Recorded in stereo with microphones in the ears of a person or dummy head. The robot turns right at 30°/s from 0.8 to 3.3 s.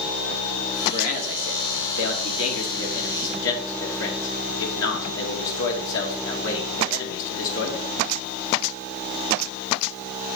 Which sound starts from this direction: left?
A man speaking, at 0.9 s.